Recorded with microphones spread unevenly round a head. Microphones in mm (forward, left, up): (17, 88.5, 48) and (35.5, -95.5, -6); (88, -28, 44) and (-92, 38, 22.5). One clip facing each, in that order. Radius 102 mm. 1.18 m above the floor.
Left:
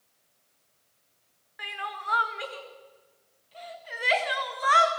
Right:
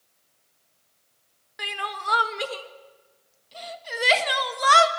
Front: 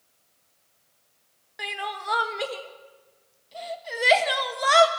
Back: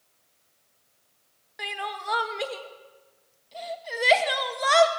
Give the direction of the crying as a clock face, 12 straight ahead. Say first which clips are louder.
Right 4 dB, front 1 dB; 4 o'clock.